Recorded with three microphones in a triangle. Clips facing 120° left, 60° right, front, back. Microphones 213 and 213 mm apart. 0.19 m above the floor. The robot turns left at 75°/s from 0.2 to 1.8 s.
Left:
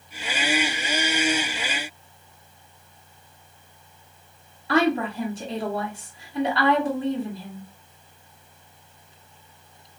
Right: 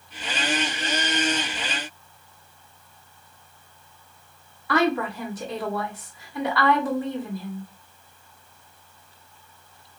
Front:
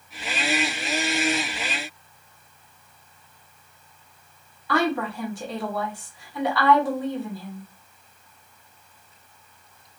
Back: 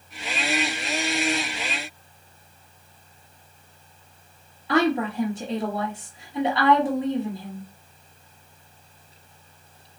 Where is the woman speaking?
140° left, 1.1 m.